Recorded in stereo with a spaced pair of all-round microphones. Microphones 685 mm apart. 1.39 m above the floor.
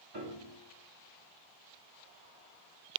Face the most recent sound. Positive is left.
turn(degrees=-35)  # may be behind; listen again after turning